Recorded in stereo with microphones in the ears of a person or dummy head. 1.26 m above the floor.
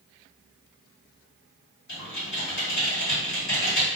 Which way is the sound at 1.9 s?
70° left (ahead or behind).